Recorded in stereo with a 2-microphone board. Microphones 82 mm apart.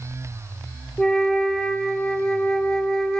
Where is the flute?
5° left (ahead or behind), 0.7 m.